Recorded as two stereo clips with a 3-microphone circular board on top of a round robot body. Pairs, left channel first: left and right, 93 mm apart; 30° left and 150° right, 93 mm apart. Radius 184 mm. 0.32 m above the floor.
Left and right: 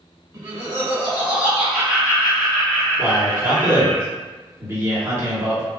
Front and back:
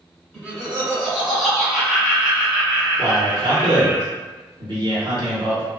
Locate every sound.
0.3 s laughter: 55° right, 1.7 m; by 4.0 s 140° left, 1.7 m
3.0 s a man speaking: 150° right, 2.0 m